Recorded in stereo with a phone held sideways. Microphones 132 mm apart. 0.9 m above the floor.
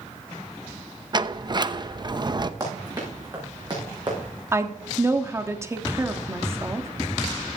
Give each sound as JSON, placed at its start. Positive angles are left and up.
{"t": 1.1, "sound": "a sliding door", "side_deg": -35, "distance_m": 0.7}
{"t": 2.6, "sound": "running footsteps", "side_deg": -25, "distance_m": 6.0}
{"t": 4.5, "sound": "a woman speaking", "side_deg": -20, "distance_m": 1.4}